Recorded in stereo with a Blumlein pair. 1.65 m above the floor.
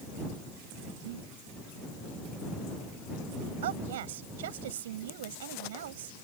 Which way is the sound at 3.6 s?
55° right.